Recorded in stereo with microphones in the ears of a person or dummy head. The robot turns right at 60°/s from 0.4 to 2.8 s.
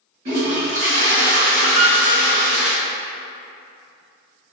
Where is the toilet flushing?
140° right, 1.2 m; by 2.7 s straight ahead, 1.2 m.